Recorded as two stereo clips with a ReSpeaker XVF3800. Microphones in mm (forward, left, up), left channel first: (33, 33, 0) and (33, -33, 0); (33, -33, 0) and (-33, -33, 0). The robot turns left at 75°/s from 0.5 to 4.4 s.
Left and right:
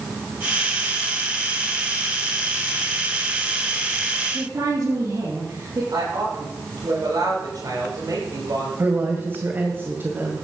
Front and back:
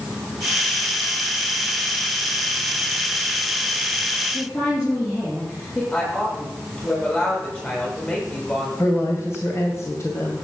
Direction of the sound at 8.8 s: 35° right.